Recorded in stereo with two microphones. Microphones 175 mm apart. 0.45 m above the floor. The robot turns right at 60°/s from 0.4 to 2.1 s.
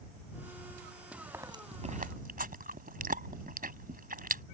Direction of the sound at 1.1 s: Centre (ahead or behind).